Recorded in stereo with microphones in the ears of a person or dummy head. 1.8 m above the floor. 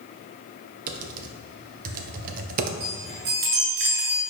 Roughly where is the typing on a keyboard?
Right.